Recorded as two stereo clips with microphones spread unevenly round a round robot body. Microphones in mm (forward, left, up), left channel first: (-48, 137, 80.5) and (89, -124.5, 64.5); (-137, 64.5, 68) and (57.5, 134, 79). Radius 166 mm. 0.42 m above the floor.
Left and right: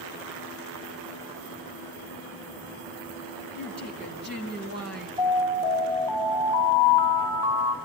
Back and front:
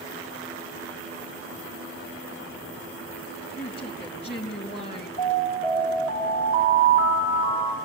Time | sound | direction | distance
3.6 | a woman speaking | 115° right | 3.5 m
5.2 | an alarm | 130° right | 3 m